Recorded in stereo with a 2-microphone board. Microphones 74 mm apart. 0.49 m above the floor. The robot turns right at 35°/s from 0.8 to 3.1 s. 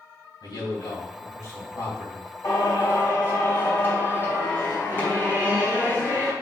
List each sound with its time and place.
0.4 s a man speaking: 95° left, 3 m; by 2.3 s 145° left, 3 m
2.4 s singing: 50° left (ahead or behind), 3.5 m; by 6.3 s 30° left (ahead or behind), 3.5 m